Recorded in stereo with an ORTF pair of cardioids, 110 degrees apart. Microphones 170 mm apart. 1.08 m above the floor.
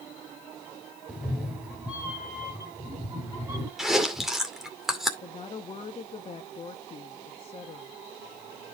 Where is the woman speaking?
35° left, 1.5 m.